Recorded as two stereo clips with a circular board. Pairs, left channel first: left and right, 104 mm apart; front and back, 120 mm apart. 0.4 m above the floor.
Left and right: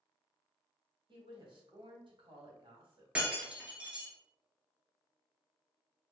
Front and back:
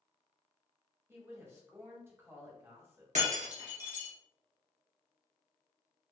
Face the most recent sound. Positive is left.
turn(degrees=-170)